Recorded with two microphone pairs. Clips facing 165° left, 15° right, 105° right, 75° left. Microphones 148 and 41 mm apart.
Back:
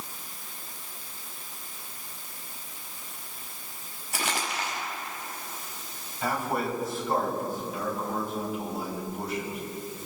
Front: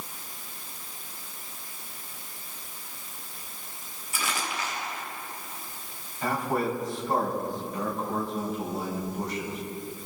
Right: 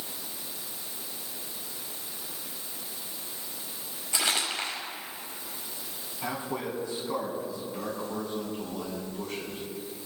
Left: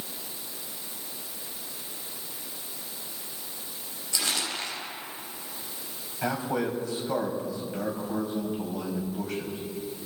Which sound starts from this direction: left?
A man speaking, at 6.2 s.